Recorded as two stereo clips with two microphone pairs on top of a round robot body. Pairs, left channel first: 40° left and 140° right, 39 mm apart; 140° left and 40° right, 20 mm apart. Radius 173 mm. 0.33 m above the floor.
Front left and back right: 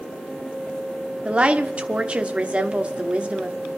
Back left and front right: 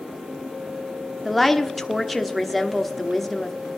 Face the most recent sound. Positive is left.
turn(degrees=-130)